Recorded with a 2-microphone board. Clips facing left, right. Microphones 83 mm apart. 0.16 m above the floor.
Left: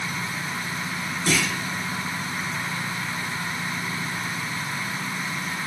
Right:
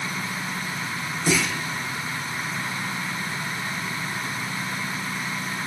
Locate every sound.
1.3 s a clunk: 10° right (ahead or behind), 7 m